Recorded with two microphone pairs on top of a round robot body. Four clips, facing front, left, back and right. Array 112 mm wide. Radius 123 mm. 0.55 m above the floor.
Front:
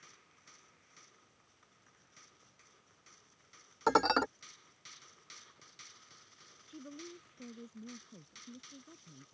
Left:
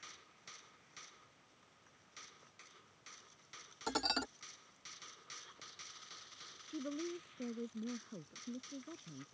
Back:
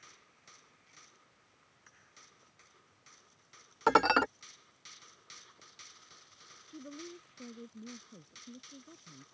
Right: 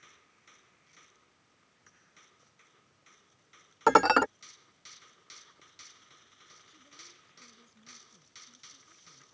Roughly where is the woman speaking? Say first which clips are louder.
Left 23 dB, back 2 dB; left.